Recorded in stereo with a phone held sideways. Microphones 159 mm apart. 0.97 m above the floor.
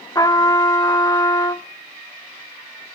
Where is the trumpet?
25° left (ahead or behind), 0.7 m.